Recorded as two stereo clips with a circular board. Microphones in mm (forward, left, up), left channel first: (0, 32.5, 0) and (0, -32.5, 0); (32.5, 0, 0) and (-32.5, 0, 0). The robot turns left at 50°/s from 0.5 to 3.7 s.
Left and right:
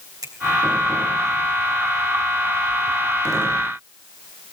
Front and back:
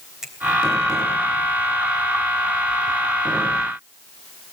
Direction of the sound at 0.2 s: 100° right.